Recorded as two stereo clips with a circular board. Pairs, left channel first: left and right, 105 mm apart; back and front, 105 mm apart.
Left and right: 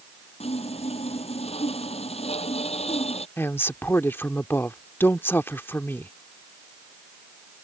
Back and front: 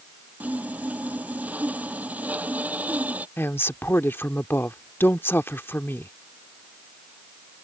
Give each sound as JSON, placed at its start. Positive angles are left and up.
{"t": 0.4, "sound": "sawing", "azimuth_deg": 75}
{"t": 3.4, "sound": "a woman speaking", "azimuth_deg": 135}